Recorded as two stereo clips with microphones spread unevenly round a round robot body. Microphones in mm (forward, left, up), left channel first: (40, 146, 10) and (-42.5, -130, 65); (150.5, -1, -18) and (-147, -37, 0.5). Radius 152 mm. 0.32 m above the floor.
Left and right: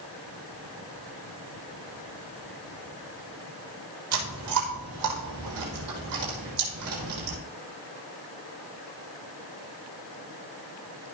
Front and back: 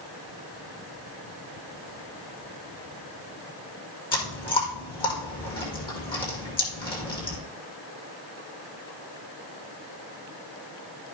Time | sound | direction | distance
4.1 | chewing | 65° right | 6 m